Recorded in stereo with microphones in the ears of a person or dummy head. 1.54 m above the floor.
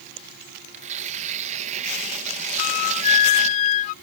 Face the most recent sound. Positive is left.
turn(degrees=40)  # may be behind; listen again after turning